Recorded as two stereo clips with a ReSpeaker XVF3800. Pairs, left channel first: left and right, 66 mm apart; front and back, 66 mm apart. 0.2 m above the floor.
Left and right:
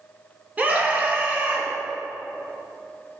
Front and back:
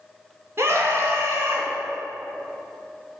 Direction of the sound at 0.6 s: 150° right.